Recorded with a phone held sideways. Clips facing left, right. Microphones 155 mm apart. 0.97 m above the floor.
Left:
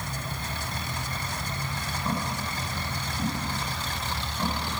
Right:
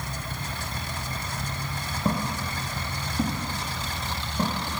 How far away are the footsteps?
About 5.5 m.